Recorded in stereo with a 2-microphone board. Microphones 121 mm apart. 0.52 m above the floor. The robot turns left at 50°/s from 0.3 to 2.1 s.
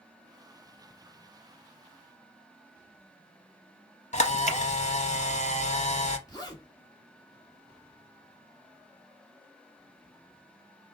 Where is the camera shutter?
65° left (ahead or behind), 0.7 m.